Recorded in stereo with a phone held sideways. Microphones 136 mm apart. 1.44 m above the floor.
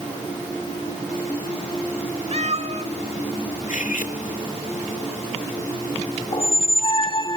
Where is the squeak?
40° left (ahead or behind), 1.3 m.